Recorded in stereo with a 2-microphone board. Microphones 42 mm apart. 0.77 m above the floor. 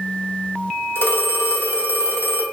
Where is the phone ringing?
70° left (ahead or behind), 1.0 m.